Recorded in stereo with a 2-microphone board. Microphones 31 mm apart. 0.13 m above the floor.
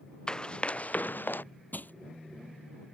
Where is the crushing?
70° left (ahead or behind).